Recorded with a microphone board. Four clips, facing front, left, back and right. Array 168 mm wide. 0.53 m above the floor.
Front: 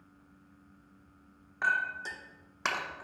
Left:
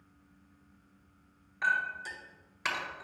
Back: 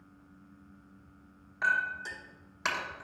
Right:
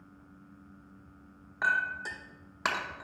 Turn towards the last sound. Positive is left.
turn(degrees=-65)